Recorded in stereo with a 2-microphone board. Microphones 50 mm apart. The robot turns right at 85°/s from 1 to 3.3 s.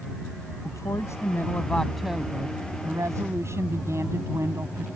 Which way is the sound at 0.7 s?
95° left.